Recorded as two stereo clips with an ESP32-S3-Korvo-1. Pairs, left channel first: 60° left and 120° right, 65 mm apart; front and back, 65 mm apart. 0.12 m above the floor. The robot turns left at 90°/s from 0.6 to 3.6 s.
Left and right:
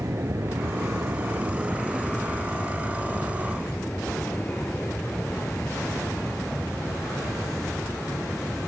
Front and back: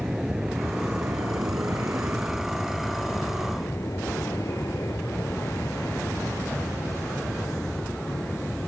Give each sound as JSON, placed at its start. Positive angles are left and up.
{"t": 0.0, "sound": "an aircraft", "azimuth_deg": -100}